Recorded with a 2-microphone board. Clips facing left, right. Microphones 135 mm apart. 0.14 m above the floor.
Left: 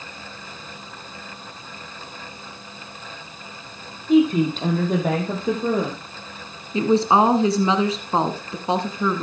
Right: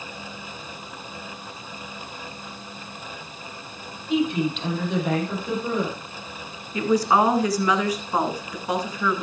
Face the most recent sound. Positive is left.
turn(degrees=25)  # may be behind; listen again after turning